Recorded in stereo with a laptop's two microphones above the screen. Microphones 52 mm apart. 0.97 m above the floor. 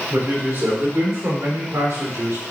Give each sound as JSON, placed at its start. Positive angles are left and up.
{"t": 0.1, "sound": "a man speaking", "side_deg": -45, "distance_m": 2.5}